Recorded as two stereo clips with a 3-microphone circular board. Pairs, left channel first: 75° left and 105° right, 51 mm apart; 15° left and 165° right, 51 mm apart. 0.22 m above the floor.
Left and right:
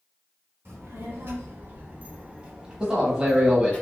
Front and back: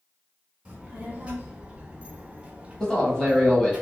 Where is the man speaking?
45° right, 1.1 m.